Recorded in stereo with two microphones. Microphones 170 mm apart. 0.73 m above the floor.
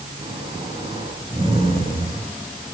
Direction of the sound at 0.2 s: 30° right (ahead or behind).